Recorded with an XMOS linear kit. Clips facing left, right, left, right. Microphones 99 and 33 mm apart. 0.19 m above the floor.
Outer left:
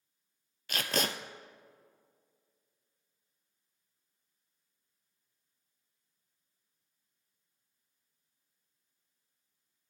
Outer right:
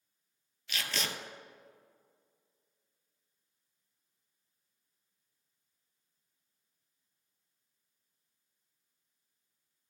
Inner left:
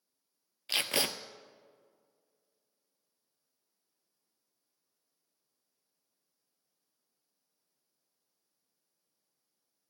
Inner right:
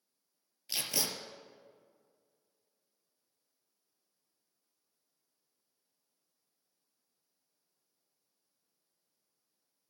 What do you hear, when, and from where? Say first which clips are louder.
0.7 s tape being pulled: outer left 5 dB, inner left 5 dB; 45° left (ahead or behind), 0.6 m